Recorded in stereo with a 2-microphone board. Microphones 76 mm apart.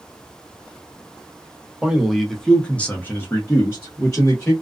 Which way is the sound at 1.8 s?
5° right (ahead or behind).